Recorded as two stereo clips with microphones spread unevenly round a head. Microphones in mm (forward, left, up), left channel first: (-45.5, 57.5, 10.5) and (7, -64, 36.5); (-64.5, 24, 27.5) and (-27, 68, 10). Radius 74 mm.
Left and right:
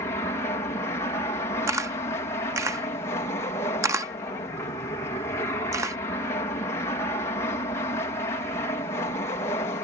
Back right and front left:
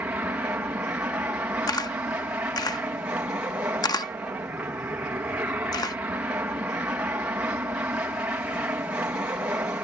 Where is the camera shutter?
140° right.